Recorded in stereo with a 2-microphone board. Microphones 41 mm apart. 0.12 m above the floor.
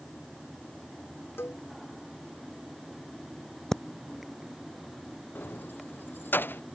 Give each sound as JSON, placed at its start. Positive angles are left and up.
{"t": 1.4, "sound": "a cowbell", "side_deg": 70}
{"t": 3.7, "sound": "breathing", "side_deg": 5}
{"t": 5.3, "sound": "keys jangling", "side_deg": 55}